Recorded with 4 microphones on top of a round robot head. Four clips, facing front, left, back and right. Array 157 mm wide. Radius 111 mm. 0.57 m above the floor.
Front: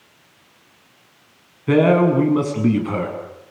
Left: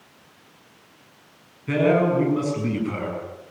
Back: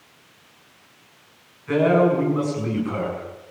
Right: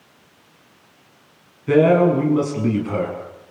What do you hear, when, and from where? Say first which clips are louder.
1.7 s a man speaking: right 5 dB, front 3 dB; 20° right, 7 m